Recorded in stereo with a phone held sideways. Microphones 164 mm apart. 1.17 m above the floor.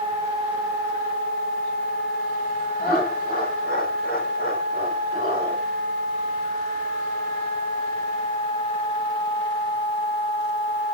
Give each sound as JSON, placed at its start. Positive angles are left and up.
{"t": 2.8, "sound": "laughter", "side_deg": 65, "distance_m": 5.0}